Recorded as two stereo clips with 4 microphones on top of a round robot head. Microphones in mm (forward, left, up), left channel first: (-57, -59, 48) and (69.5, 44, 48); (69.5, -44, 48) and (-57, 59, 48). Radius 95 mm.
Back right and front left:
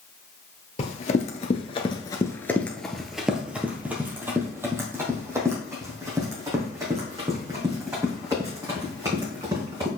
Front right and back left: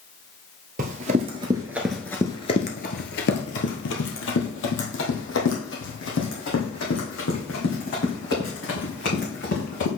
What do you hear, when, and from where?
0.8 s running footsteps: 175° left, 1.1 m; by 9.9 s 30° right, 5 m